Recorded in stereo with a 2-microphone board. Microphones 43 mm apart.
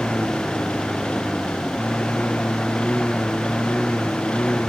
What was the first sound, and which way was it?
A lawn mower, 25° left (ahead or behind).